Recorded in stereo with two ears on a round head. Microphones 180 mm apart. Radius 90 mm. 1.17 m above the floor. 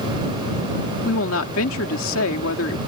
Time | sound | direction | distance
1.1 | a woman speaking | 75° left (ahead or behind) | ?